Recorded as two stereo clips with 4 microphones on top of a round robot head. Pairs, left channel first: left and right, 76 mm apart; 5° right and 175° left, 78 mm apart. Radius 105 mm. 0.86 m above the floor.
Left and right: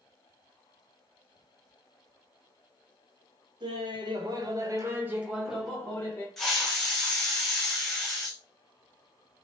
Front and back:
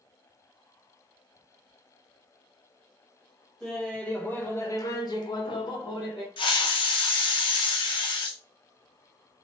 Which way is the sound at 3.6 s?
85° right.